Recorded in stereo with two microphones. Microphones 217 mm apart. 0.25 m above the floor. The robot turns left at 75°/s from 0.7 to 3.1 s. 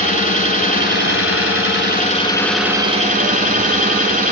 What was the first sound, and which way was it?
An engine running, 140° left.